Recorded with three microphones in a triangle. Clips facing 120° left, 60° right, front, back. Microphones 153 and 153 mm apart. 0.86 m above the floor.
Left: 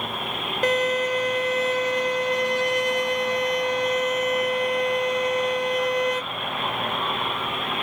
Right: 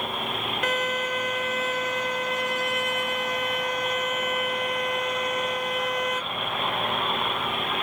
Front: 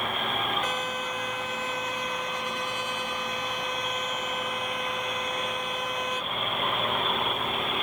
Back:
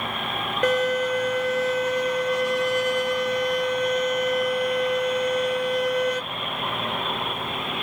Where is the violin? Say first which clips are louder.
Left 7 dB, back 11 dB; 175° left, 1.0 m.